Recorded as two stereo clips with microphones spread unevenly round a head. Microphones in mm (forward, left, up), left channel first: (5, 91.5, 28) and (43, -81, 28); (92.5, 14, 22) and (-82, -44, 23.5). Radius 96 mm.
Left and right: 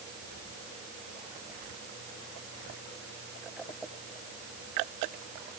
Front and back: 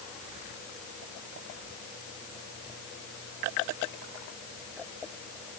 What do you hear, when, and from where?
Only background noise.